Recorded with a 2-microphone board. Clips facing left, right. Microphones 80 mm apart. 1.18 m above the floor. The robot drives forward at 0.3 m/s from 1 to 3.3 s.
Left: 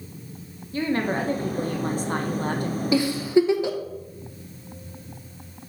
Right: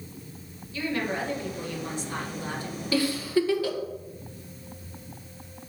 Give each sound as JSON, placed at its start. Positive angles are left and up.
{"t": 0.7, "sound": "a woman speaking", "side_deg": 40, "distance_m": 1.4}
{"t": 2.9, "sound": "a giggle", "side_deg": 20, "distance_m": 1.1}